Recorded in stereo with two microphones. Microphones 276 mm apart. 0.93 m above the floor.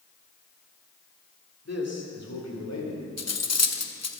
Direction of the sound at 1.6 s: 60° left (ahead or behind).